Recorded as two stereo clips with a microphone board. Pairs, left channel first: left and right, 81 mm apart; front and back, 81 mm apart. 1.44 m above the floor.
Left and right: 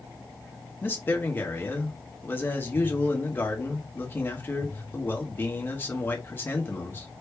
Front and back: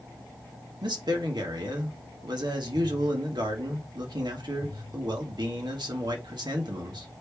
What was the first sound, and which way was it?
A man speaking, 155° left.